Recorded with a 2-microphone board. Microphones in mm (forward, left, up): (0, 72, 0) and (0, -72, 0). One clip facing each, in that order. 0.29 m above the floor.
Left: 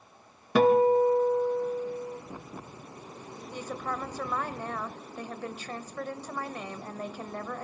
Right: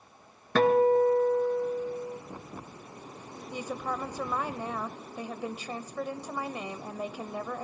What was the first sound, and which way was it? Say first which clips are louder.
A guitar: left 1 dB; 10° left (ahead or behind).